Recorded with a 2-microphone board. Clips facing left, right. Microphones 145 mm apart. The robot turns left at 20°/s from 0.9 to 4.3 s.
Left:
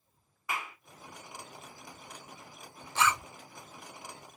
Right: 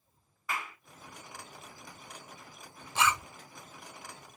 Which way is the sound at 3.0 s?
15° right (ahead or behind).